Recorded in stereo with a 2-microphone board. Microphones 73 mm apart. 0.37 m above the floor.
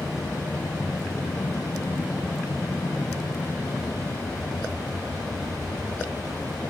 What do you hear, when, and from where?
0.0 s an aircraft: 55° left (ahead or behind); by 6.7 s 45° left (ahead or behind)